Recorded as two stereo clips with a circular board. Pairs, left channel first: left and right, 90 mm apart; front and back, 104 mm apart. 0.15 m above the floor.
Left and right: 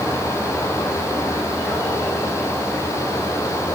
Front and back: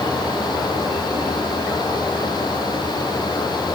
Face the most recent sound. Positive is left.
No sound to turn to.